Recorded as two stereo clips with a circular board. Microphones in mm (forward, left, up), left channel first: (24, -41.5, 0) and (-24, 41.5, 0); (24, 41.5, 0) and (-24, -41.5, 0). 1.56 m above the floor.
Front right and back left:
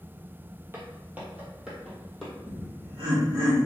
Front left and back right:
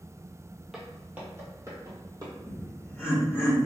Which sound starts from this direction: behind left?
Laughter, at 2.5 s.